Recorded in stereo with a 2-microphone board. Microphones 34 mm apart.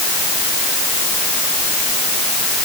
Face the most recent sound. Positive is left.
No sound to turn to.